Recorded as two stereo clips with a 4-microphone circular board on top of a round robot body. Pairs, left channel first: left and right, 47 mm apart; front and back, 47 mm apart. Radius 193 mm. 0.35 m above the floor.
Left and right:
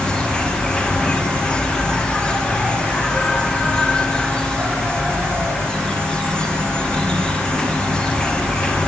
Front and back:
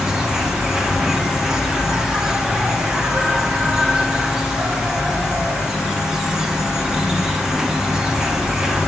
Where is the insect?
125° left, 2.0 m.